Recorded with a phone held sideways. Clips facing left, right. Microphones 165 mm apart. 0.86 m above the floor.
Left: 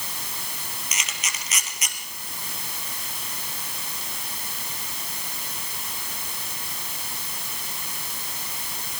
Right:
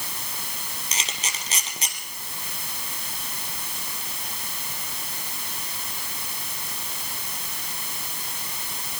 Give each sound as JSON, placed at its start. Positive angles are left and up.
{"t": 0.9, "sound": "a camera shutter", "side_deg": -30, "distance_m": 3.5}